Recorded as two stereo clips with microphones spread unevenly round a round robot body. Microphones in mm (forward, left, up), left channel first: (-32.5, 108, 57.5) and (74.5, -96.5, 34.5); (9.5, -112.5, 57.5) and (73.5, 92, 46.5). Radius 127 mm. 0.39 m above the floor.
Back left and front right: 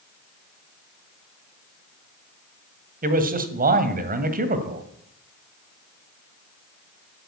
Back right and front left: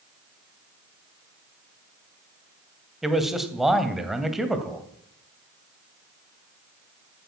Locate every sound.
3.0 s a man speaking: 15° right, 2 m